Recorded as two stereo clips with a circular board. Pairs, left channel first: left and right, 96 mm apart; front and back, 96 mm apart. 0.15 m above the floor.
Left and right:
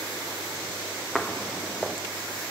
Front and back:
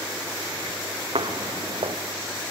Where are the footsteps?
175° left, 0.7 m.